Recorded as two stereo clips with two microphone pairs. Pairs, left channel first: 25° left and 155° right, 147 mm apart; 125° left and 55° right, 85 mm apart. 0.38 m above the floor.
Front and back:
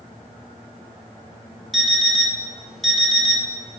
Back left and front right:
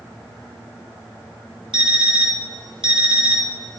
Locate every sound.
1.7 s an alarm clock: 65° right, 1.6 m